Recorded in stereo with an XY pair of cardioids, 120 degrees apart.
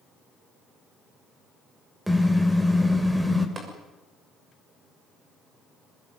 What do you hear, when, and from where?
2.1 s a car horn: 5° right, 3 m
3.6 s tapping: 35° right, 6.5 m